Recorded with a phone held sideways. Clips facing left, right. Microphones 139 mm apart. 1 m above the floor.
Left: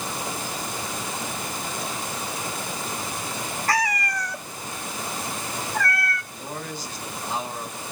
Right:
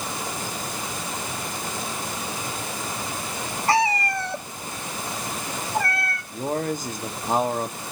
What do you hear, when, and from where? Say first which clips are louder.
3.7 s a cat meowing: right 4 dB; 25° right (ahead or behind), 0.6 m
6.3 s a man speaking: right 9 dB; 50° right (ahead or behind), 1.5 m